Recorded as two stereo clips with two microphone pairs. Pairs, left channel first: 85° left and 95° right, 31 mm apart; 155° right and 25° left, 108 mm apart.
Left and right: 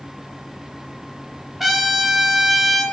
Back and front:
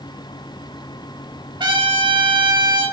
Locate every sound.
1.6 s a trumpet: 10° right, 0.6 m